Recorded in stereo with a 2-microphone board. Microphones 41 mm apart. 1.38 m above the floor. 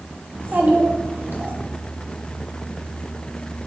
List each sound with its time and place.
0.3 s a child speaking: 50° right (ahead or behind), 1.0 m